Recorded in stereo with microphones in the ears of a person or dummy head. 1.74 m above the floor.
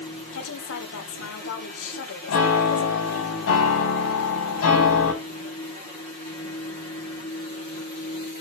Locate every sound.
0.3 s a woman speaking: 75° left (ahead or behind), 2 m
2.3 s a piano: 75° left (ahead or behind), 6 m